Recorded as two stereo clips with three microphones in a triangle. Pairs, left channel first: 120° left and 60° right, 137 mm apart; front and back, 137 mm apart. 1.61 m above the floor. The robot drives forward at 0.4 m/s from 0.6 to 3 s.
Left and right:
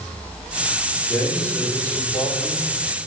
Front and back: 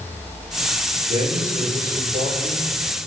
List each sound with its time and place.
1.1 s a man speaking: 165° right, 5.5 m